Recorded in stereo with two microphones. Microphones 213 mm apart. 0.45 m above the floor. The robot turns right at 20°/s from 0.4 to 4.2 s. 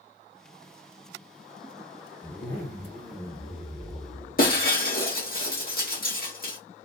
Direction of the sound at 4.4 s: 45° left (ahead or behind).